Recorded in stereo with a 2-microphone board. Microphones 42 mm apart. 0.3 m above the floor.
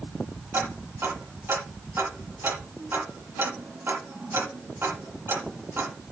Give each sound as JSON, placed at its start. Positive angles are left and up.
{"t": 0.5, "sound": "ticking", "side_deg": -70, "distance_m": 7.0}